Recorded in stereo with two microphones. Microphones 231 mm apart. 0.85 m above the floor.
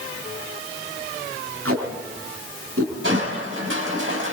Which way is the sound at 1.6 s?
80° right.